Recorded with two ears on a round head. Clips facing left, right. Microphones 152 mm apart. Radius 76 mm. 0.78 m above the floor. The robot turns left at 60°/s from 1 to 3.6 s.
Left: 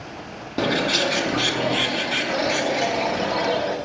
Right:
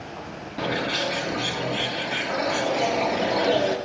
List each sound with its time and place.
0.6 s a bird: 120° left, 1.0 m; by 3.8 s 35° right, 1.0 m